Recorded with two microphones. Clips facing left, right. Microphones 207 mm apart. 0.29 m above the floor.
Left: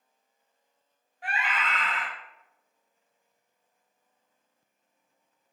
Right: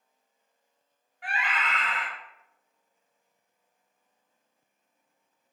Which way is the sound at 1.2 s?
30° left (ahead or behind).